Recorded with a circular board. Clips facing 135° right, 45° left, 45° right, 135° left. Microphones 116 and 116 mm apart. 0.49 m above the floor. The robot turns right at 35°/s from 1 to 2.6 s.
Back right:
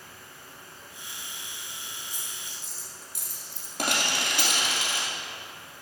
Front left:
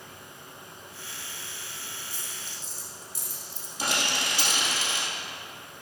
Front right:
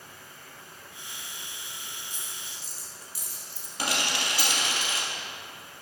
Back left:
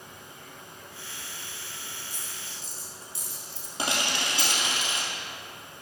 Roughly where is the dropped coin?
Behind.